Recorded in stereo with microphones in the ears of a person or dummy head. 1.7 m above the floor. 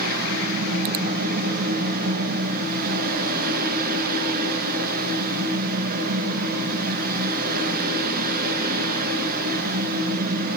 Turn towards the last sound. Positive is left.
turn(degrees=-50)  # may be behind; listen again after turning